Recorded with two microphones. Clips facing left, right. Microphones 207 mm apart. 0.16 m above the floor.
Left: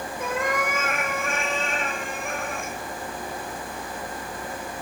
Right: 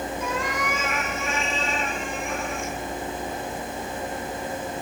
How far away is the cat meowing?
About 3 m.